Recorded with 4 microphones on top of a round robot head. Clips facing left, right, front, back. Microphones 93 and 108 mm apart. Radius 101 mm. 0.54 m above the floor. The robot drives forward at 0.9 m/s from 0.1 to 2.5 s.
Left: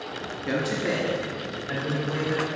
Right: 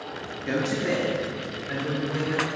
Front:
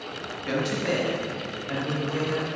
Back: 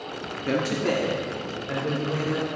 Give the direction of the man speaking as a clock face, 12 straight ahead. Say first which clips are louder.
Right 1 dB, back 2 dB; 6 o'clock.